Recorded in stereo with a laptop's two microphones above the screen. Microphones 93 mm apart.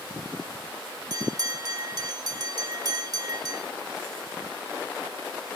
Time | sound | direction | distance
1.1 | a bell | 40° right (ahead or behind) | 2.5 m